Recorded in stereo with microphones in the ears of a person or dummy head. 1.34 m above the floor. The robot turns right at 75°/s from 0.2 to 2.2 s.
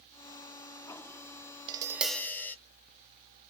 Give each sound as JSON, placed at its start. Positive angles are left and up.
{"t": 1.7, "sound": "tapping", "azimuth_deg": -25, "distance_m": 0.8}